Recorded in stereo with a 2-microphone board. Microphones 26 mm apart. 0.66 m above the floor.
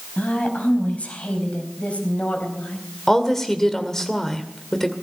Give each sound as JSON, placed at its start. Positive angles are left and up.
{"t": 0.2, "sound": "a woman speaking", "side_deg": 65, "distance_m": 4.5}
{"t": 3.1, "sound": "a woman speaking", "side_deg": 10, "distance_m": 2.0}